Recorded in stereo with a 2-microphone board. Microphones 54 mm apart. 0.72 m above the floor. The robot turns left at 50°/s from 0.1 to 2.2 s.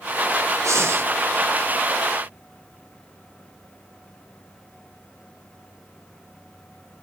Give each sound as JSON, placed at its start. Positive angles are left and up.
{"t": 0.6, "sound": "breathing", "side_deg": -60, "distance_m": 0.5}